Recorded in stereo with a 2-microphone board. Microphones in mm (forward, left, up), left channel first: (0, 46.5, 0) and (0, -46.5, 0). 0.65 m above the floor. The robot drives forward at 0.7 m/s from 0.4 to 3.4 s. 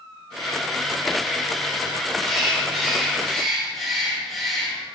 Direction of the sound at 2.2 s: Centre (ahead or behind).